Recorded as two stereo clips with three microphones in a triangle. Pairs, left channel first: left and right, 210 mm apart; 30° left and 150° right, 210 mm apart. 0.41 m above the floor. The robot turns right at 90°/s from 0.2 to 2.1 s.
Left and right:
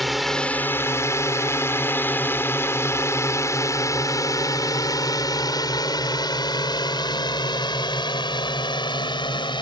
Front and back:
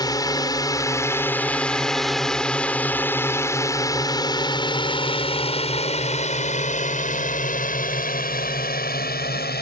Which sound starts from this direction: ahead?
A drone, at 0.0 s.